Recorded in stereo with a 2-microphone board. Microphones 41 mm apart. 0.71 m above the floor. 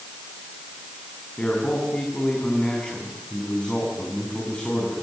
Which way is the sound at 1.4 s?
25° left (ahead or behind).